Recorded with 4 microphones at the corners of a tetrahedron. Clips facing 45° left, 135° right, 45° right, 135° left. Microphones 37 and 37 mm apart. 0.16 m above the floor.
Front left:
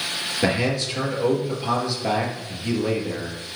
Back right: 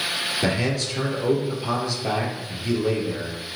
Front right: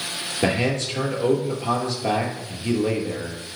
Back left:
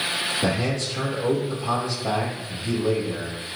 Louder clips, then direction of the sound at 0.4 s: Front left 4 dB, front right 2 dB; 25° right.